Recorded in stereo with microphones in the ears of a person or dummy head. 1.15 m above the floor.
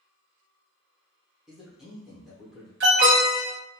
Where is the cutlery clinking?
No cutlery clinking in this recording.